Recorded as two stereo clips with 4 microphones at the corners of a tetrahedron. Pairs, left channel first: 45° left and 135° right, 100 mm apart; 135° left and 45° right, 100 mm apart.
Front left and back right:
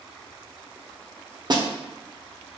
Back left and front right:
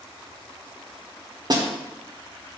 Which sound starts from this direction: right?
A snare drum, at 1.5 s.